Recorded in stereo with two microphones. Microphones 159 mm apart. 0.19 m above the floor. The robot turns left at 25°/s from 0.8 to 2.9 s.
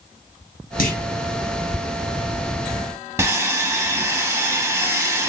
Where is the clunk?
65° left (ahead or behind), 2.0 m; by 1.1 s 70° left (ahead or behind), 2.0 m.